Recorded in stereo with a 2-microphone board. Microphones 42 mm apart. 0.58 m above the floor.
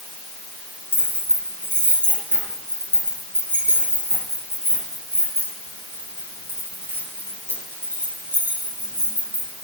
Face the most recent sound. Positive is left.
turn(degrees=-55)  # may be behind; listen again after turning